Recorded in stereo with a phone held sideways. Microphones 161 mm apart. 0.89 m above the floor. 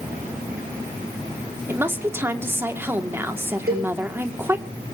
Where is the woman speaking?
15° right (ahead or behind), 2 m.